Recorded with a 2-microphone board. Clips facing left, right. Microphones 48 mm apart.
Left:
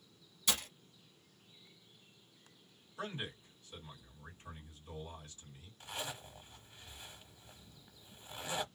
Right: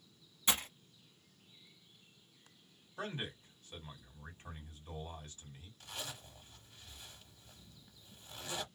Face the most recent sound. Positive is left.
turn(degrees=20)  # may be behind; listen again after turning